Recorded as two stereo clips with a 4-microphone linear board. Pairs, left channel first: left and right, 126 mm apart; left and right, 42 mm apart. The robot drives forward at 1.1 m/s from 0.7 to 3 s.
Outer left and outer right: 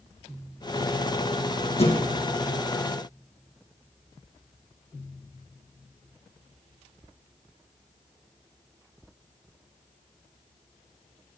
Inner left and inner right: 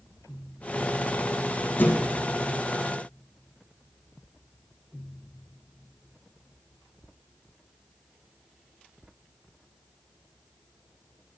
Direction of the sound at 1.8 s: 50° left (ahead or behind).